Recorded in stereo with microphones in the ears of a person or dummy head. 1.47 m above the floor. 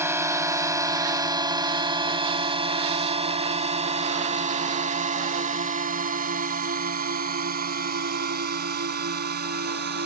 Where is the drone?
10° right (ahead or behind); by 10.1 s 55° right (ahead or behind).